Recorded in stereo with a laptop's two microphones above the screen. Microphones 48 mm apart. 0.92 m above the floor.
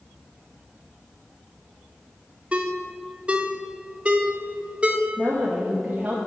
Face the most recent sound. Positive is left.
turn(degrees=-35)  # may be behind; listen again after turning